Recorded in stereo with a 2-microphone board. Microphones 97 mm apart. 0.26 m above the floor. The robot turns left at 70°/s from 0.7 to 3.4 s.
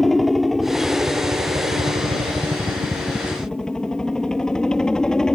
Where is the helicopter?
Straight ahead; by 5.4 s 175° left.